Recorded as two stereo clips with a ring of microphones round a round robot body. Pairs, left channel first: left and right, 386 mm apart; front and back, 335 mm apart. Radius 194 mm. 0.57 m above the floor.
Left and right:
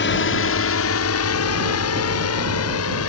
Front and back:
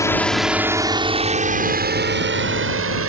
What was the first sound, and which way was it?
A drone, 75° left.